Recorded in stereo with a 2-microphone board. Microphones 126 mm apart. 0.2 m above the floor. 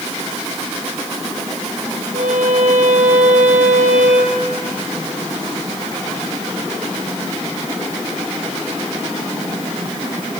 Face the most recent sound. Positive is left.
turn(degrees=-75)  # may be behind; listen again after turning